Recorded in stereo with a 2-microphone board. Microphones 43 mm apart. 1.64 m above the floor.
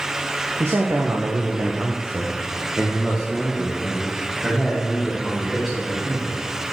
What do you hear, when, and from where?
0.6 s a man speaking: 80° right, 0.9 m; by 6.4 s centre (ahead or behind), 3.5 m